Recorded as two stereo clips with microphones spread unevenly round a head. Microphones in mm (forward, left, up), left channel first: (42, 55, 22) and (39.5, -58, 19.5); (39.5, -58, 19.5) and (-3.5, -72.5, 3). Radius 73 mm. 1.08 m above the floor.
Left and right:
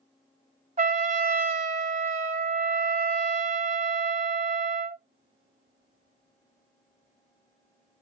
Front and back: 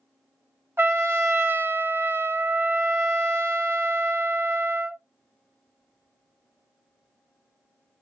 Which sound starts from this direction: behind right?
A trumpet, at 0.8 s.